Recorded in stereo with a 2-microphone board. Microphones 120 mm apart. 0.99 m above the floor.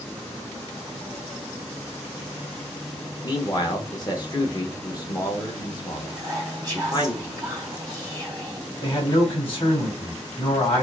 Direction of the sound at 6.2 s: 30° right (ahead or behind).